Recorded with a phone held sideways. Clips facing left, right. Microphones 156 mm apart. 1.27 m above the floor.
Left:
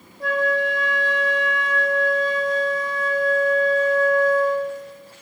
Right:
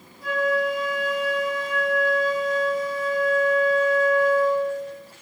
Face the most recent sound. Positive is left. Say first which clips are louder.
# left 1 dB
turn(degrees=85)